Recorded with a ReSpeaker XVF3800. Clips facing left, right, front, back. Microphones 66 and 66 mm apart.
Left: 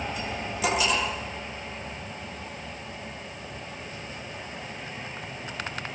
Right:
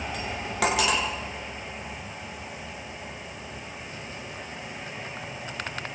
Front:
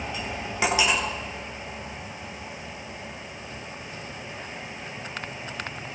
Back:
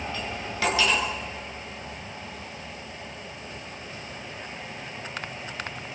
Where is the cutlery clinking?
75° right, 8 m.